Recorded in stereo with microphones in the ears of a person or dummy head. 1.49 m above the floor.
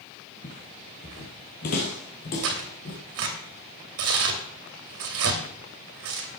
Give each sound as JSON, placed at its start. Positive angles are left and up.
{"t": 0.4, "sound": "footsteps", "side_deg": 30, "distance_m": 1.7}
{"t": 2.4, "sound": "tearing paper", "side_deg": -65, "distance_m": 2.5}